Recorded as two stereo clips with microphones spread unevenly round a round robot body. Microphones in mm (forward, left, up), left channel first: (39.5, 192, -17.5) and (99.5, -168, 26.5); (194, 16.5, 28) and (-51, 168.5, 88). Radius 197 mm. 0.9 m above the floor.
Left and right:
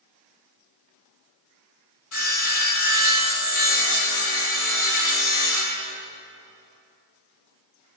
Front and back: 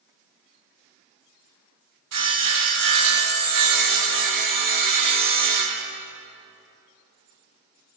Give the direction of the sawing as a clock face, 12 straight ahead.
7 o'clock.